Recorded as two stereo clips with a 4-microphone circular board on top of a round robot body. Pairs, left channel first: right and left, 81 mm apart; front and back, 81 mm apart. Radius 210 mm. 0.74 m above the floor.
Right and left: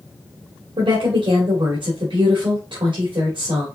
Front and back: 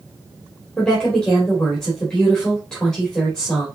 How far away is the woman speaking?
About 2.5 m.